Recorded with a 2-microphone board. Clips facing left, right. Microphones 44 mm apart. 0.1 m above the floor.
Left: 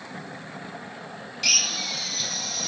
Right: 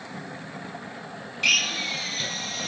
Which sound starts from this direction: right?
A drill, at 1.4 s.